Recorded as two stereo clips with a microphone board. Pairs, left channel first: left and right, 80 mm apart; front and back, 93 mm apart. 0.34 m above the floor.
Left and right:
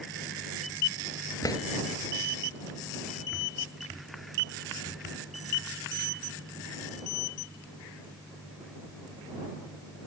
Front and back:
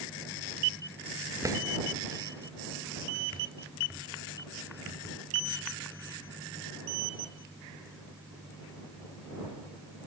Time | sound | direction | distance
1.4 | a drawer | 130° left | ?